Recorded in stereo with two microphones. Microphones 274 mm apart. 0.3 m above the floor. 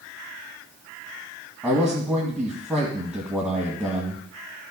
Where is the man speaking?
5° right (ahead or behind), 1.7 m.